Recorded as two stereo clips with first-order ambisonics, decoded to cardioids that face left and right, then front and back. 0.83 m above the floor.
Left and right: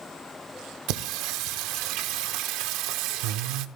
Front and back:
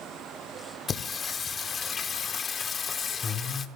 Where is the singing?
70° right, 0.8 m.